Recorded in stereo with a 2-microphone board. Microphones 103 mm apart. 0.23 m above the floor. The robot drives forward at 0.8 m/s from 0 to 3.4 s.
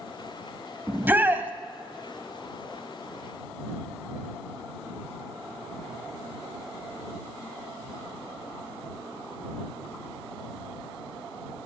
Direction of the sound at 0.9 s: 20° right (ahead or behind).